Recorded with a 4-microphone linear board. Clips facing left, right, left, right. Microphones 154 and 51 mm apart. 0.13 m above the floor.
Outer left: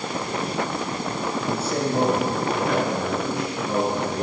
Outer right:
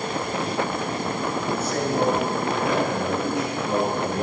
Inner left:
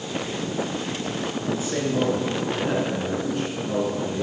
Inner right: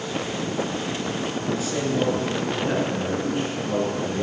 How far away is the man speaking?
About 2 m.